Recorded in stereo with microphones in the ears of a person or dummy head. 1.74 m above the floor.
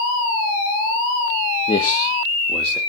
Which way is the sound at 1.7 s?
30° left (ahead or behind).